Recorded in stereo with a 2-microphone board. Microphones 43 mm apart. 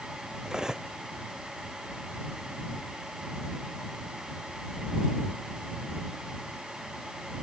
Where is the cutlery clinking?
15° right (ahead or behind).